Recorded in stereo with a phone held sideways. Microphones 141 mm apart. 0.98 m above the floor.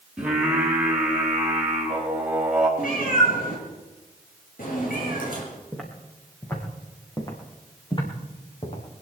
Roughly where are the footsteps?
Centre.